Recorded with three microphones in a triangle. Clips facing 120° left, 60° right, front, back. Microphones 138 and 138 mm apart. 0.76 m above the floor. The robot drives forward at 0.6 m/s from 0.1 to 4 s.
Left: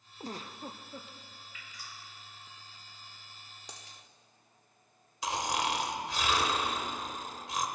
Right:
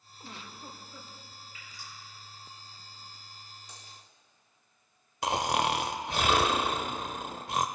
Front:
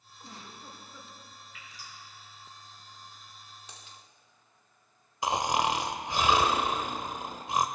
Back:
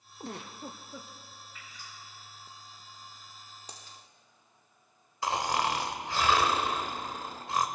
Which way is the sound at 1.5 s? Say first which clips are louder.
Even, front 1 dB; straight ahead.